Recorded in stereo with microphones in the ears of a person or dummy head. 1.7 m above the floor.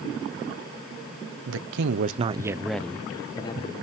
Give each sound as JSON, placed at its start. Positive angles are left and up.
{"t": 1.5, "sound": "a man speaking", "side_deg": -80, "distance_m": 1.1}